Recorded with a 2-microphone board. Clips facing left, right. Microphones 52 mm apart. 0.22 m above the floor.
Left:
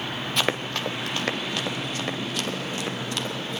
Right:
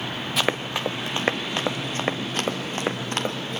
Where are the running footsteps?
Centre (ahead or behind), 1.3 m; by 3.6 s 45° right (ahead or behind), 4 m.